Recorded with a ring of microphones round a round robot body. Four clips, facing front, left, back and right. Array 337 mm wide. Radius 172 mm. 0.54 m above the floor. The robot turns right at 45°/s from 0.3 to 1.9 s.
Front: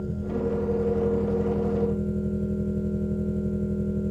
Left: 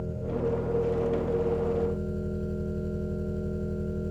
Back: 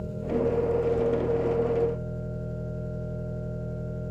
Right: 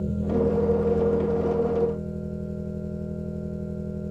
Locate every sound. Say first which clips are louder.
0.0 s an engine running: right 6 dB, back 1 dB; 60° right, 7 m; by 4.1 s 10° left, 7 m